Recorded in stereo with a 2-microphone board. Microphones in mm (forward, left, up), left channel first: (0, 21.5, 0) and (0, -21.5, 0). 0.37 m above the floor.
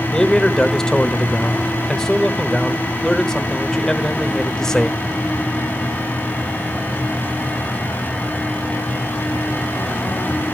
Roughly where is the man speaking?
Centre.